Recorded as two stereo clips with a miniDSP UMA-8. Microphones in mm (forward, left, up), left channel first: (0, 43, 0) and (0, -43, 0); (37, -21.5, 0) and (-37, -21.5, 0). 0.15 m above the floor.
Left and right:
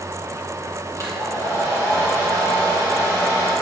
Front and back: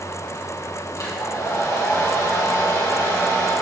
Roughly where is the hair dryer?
Ahead left.